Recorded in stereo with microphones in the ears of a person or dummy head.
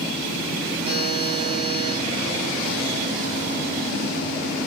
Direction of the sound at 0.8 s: 35° right (ahead or behind).